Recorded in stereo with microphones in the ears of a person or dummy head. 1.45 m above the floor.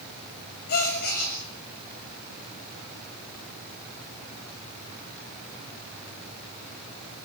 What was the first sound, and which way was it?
A gasp, 55° left (ahead or behind).